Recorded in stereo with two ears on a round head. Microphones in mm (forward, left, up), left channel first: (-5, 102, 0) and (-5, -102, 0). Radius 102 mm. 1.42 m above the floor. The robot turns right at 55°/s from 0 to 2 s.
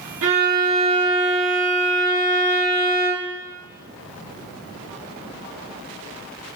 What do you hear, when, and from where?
0.2 s a violin: 60° right, 1.9 m; by 3.4 s 35° left, 1.9 m